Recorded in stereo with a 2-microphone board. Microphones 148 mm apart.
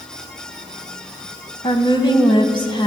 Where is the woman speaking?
30° left (ahead or behind), 1.4 m.